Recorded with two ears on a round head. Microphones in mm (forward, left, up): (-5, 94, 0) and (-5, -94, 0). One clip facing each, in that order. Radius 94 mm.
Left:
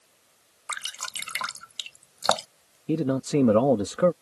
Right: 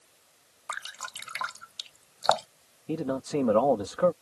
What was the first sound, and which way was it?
Dripping, 40° left (ahead or behind).